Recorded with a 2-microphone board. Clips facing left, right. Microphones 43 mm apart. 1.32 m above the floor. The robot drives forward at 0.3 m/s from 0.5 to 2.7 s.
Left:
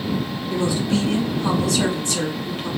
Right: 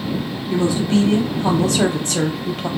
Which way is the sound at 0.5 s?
30° right (ahead or behind).